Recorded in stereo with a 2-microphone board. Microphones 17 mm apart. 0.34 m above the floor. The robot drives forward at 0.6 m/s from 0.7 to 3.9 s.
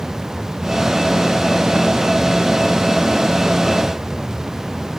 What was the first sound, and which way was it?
Only background noise.